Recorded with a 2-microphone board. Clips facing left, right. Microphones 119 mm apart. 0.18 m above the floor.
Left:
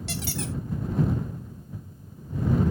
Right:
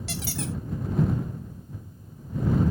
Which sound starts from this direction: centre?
A squeak, at 0.1 s.